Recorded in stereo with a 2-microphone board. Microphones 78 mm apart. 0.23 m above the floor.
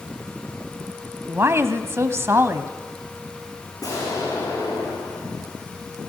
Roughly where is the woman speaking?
Right.